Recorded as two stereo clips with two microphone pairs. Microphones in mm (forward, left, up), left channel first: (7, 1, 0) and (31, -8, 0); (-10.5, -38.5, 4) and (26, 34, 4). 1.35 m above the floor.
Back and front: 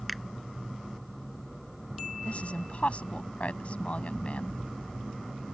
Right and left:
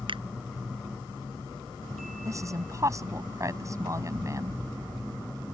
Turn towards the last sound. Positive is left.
turn(degrees=115)